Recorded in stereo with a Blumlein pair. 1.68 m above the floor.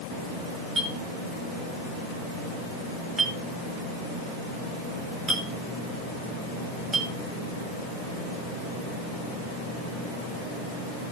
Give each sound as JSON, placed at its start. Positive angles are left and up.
{"t": 0.8, "sound": "a clink", "azimuth_deg": -10, "distance_m": 3.5}